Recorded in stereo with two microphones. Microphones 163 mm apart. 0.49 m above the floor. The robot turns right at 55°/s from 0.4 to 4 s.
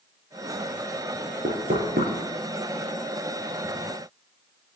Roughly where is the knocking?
Right.